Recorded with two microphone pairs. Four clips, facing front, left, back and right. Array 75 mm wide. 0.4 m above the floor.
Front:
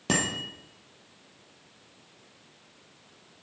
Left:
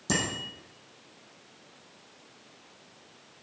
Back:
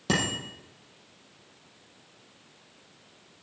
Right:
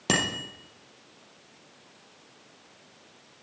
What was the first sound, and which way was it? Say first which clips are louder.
A bicycle bell: right 3 dB, even; 85° right.